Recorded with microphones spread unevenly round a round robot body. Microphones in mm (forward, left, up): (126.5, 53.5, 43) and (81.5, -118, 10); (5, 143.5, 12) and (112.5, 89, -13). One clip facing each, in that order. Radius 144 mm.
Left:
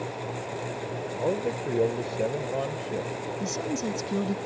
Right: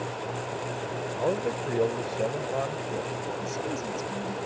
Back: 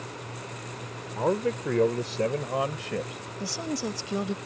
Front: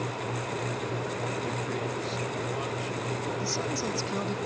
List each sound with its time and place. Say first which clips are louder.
1.1 s a man speaking: even, back 6 dB; 160° left; by 3.2 s 140° left
3.4 s a woman speaking: left 2 dB, front 1 dB; 80° left